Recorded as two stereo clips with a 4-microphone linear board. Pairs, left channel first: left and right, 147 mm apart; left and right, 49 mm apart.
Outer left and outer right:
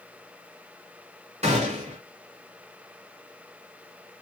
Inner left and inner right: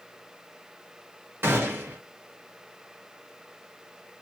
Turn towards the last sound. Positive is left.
turn(degrees=-50)  # may be behind; listen again after turning